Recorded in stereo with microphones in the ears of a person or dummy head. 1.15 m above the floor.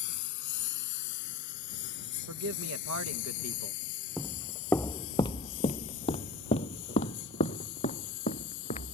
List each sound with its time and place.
0.0 s a lawn mower: 55° left (ahead or behind); by 8.9 s 70° left (ahead or behind)
2.3 s a man speaking: 60° right (ahead or behind)
4.2 s footsteps: centre (ahead or behind); by 8.9 s 45° left (ahead or behind)